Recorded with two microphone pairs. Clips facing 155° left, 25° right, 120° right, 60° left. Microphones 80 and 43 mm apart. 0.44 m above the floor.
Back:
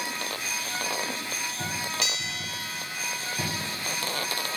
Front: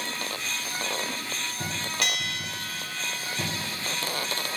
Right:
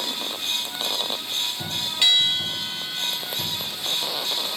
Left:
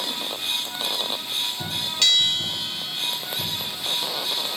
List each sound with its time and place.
2.0 s a bell: 45° right, 1.9 m